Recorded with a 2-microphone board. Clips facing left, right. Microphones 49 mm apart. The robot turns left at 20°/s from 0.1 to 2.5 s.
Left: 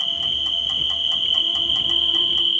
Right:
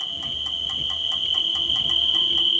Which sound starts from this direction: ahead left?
An insect, at 0.0 s.